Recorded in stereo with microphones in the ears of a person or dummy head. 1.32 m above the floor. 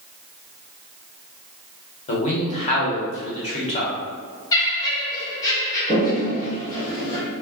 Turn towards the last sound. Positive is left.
turn(degrees=30)  # may be behind; listen again after turning